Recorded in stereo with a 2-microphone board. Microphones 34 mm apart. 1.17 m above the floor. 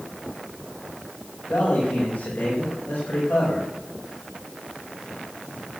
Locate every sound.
1.5 s a man speaking: 55° left (ahead or behind), 5.5 m